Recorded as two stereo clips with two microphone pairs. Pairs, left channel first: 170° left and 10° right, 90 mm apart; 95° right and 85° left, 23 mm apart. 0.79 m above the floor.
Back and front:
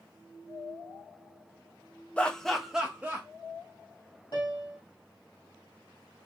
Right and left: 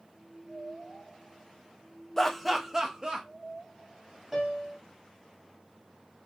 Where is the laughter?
140° right, 0.5 m; by 3.3 s 50° left, 0.7 m.